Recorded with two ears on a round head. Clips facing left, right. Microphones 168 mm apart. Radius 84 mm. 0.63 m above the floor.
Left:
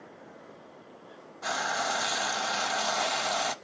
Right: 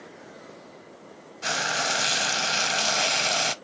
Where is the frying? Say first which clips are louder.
Right 2 dB; 30° right (ahead or behind), 0.7 m.